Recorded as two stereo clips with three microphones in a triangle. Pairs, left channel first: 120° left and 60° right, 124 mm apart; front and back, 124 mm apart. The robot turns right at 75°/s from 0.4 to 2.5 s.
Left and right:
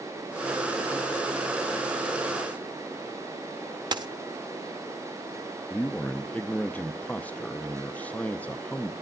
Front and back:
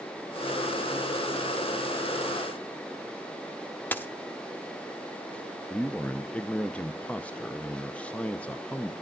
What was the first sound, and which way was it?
A dropped coin, 65° right.